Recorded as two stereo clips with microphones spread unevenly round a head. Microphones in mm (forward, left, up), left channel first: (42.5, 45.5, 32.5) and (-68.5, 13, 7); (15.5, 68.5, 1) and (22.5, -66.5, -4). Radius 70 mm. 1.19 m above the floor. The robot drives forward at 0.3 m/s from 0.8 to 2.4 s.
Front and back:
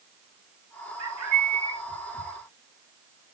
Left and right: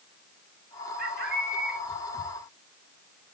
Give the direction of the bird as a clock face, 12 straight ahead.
3 o'clock.